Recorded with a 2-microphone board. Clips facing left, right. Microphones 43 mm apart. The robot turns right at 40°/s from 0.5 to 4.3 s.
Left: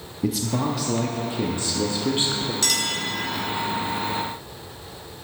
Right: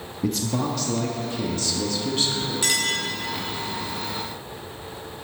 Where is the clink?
20° right (ahead or behind), 1.7 m; by 3.0 s 5° right (ahead or behind), 1.7 m.